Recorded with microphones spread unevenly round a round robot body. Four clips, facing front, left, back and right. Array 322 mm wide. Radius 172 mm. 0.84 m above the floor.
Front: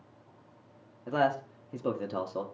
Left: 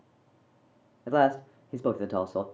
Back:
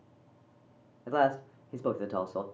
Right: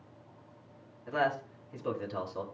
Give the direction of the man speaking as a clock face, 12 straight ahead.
10 o'clock.